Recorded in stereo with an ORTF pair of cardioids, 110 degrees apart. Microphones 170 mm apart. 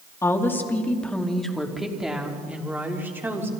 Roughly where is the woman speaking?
Ahead.